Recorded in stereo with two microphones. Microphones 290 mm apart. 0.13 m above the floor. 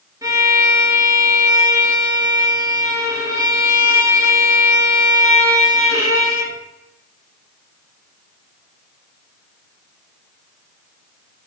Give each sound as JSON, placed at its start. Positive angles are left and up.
{"t": 0.2, "sound": "a violin", "side_deg": -10, "distance_m": 0.7}